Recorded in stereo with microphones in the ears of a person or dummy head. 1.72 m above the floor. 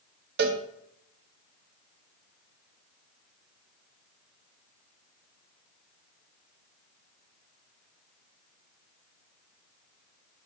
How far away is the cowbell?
About 1.2 m.